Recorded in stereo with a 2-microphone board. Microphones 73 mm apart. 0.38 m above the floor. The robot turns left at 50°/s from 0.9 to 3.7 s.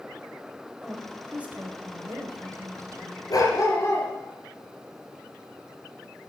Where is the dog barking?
60° left (ahead or behind), 2 m; by 4.1 s 40° left (ahead or behind), 2 m.